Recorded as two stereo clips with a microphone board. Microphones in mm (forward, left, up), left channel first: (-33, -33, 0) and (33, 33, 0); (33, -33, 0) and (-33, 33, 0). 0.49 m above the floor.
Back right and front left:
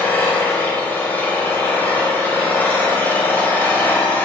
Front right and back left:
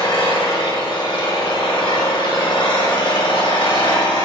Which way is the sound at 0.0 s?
65° right.